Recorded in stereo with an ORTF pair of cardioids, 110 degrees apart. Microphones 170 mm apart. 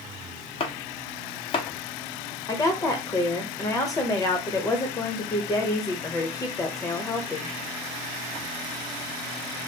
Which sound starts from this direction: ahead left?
Chopping, at 0.6 s.